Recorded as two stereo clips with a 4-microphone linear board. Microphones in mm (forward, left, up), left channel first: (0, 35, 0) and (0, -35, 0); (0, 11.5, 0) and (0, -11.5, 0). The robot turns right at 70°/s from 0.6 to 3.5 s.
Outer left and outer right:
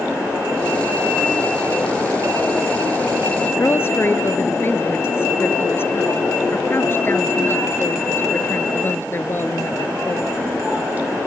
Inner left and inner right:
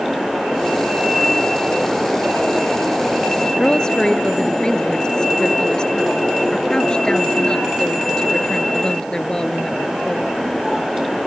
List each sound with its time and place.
3.6 s a woman speaking: 35° left (ahead or behind)